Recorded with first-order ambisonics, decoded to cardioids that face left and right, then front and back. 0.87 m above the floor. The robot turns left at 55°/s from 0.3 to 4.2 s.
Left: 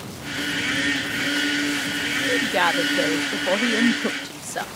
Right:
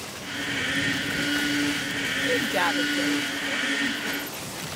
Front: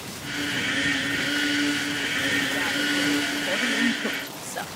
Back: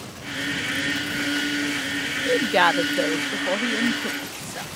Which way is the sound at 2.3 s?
175° right.